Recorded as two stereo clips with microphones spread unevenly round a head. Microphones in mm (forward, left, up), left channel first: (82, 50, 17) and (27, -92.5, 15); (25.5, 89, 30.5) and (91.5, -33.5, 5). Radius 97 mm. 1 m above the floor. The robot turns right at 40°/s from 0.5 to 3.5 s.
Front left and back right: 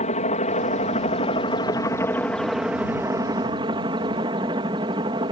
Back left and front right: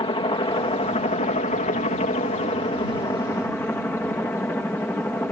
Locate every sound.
0.0 s a helicopter: 80° left; by 5.3 s 160° right